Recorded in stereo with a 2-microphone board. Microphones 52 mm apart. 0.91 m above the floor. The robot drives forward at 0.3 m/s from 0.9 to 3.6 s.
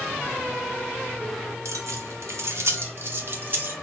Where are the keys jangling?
80° right, 0.7 m; by 3.7 s 45° right (ahead or behind), 0.9 m.